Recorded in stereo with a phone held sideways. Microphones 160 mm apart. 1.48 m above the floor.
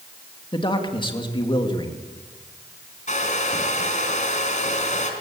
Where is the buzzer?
No buzzer in this recording.